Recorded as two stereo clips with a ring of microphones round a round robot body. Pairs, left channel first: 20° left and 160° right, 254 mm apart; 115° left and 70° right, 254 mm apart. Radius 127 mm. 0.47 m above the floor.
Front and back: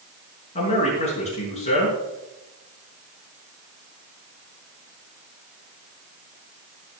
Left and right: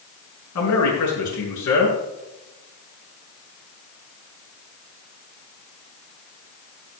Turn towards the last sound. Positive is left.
turn(degrees=90)